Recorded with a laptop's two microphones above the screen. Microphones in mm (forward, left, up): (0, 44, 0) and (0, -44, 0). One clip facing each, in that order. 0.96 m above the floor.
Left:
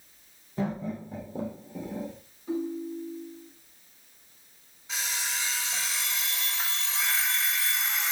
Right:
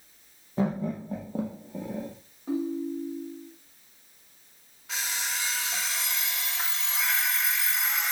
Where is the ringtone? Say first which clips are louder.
Right 2 dB; 45° right (ahead or behind), 1.0 m.